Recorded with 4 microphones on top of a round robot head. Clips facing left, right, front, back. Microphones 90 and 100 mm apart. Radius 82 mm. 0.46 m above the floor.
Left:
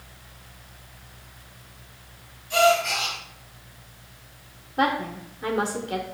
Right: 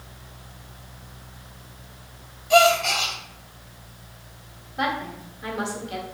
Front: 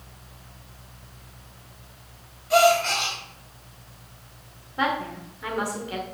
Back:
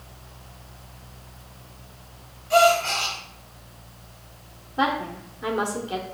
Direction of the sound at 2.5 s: 75° right.